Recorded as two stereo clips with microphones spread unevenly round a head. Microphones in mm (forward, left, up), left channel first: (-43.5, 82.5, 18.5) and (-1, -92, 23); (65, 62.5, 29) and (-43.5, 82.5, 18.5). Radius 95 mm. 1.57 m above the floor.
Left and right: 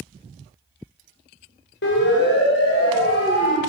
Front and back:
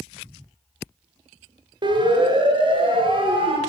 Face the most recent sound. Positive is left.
turn(degrees=130)